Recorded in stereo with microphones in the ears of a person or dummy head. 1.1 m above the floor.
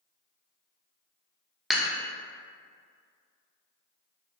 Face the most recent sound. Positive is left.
turn(degrees=-5)  # may be behind; listen again after turning